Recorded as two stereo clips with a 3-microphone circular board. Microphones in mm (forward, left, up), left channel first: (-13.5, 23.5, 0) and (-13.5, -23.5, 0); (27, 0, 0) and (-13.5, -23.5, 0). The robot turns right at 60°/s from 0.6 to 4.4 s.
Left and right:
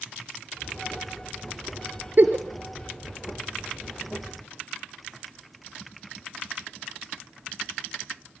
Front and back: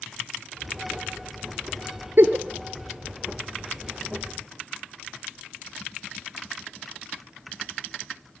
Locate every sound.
2.2 s a giggle: 125° right, 0.7 m; by 2.5 s 110° right, 0.7 m